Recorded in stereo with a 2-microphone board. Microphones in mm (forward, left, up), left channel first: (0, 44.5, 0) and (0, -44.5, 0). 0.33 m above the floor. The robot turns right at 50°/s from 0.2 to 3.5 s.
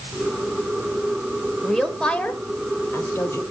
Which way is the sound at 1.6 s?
Centre (ahead or behind).